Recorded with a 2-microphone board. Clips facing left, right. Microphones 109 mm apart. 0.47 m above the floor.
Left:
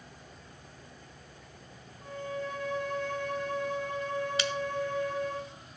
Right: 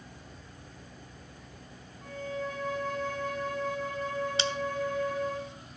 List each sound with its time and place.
2.0 s a violin: 5° left (ahead or behind), 6.5 m
4.4 s scissors: 30° right (ahead or behind), 1.0 m